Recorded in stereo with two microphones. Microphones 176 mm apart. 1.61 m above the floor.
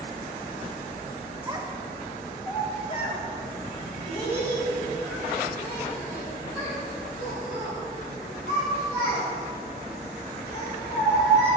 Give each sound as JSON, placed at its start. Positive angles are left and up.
{"t": 1.4, "sound": "a child speaking", "side_deg": -25, "distance_m": 0.9}